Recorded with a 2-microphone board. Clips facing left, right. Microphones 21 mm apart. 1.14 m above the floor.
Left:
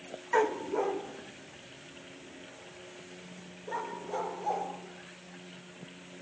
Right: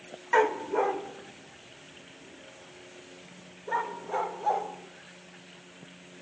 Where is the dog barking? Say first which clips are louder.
Right 4 dB; 20° right (ahead or behind), 0.6 m; by 4.7 s 30° right (ahead or behind), 2.5 m.